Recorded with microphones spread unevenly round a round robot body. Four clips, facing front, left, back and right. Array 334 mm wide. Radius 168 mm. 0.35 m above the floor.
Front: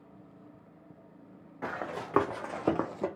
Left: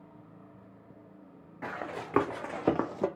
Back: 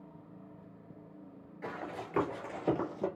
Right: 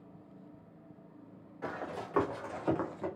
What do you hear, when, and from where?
1.6 s running footsteps: 40° left, 1.8 m; by 3.1 s 75° left, 0.8 m